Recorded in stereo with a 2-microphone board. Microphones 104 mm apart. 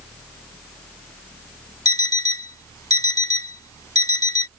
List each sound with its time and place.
1.9 s an alarm clock: 35° left (ahead or behind)